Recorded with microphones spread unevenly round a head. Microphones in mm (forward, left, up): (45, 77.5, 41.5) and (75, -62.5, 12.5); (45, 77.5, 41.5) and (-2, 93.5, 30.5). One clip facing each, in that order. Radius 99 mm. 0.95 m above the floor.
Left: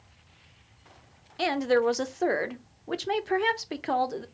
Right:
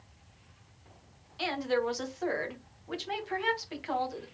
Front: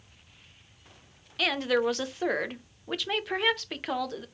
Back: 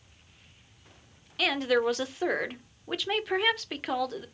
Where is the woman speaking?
85° left, 0.8 m.